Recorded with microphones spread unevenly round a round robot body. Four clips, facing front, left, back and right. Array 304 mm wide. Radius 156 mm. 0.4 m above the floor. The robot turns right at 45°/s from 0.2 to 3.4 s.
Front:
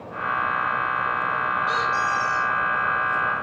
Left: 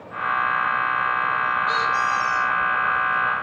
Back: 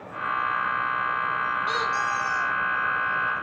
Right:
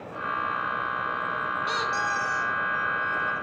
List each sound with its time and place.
1.7 s a squeak: 115° right, 2.5 m; by 2.5 s 75° right, 2.5 m